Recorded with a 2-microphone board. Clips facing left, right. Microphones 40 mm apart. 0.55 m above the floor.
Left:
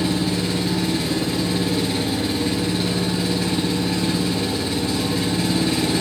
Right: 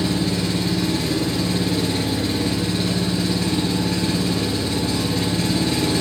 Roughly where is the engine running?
Centre.